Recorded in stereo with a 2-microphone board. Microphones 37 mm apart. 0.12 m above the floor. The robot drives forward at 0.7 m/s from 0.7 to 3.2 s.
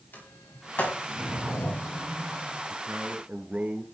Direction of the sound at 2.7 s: 45° right (ahead or behind).